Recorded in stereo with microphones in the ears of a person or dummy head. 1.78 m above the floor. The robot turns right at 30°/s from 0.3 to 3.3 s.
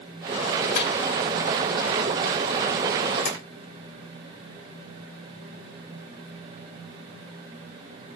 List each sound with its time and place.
0.8 s a microwave: 65° left (ahead or behind), 3.5 m; by 0.9 s 60° left (ahead or behind), 3.5 m
3.2 s tapping: 65° left (ahead or behind), 4.5 m; by 3.4 s 60° left (ahead or behind), 4.5 m